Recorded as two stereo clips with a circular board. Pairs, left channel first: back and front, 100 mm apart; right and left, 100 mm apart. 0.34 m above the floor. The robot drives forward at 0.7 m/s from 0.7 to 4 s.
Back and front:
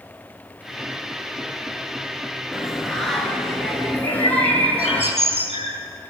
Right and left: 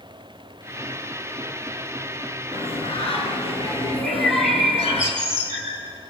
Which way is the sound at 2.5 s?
85° right.